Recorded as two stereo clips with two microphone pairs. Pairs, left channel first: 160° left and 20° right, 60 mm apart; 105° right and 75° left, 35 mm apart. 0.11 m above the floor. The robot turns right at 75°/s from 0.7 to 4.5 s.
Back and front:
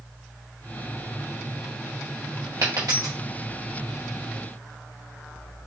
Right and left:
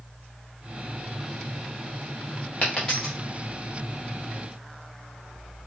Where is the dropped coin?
50° right, 1.5 m; by 3.1 s 10° right, 1.5 m.